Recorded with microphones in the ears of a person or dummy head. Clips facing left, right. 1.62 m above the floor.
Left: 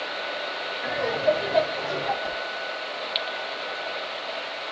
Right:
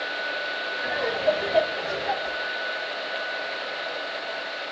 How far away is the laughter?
About 6.5 m.